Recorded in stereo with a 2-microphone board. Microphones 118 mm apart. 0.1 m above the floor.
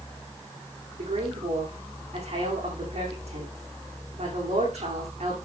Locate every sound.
1.0 s a woman speaking: 65° right (ahead or behind), 5 m